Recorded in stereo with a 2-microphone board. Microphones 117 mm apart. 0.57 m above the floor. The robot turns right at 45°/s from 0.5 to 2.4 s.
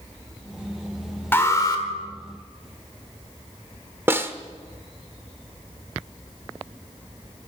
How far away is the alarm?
About 1.6 m.